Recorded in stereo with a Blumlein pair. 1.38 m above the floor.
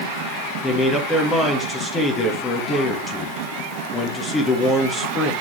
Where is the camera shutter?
I don't hear a camera shutter.